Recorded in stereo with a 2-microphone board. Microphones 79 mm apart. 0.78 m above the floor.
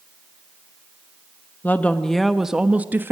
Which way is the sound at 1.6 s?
25° left (ahead or behind).